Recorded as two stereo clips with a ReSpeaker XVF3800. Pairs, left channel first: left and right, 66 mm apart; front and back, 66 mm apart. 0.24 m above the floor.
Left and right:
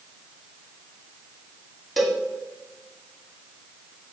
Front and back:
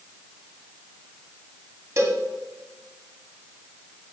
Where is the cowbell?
Straight behind, 1.7 m.